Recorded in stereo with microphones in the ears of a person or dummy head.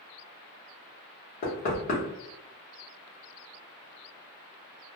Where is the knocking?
45° left (ahead or behind), 1.0 m.